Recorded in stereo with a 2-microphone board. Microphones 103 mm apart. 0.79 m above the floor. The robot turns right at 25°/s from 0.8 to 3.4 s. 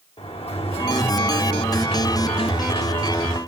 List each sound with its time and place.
0.2 s a sliding door: 75° left, 2.5 m; by 3.4 s 140° left, 2.5 m